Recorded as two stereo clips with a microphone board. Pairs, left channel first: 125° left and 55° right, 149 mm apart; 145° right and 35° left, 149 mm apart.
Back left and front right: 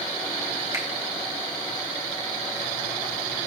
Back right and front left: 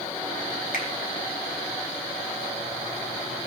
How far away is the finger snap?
About 3.5 m.